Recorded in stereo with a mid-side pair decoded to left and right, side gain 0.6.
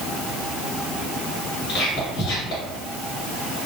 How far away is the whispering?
About 1.1 m.